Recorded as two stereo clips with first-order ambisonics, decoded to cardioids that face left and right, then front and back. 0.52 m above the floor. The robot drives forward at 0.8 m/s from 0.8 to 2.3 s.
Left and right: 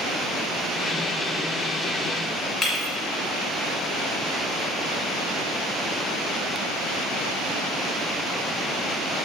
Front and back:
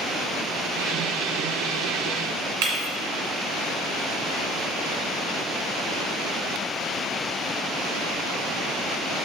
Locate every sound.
2.6 s breaking glass: 175° left, 2 m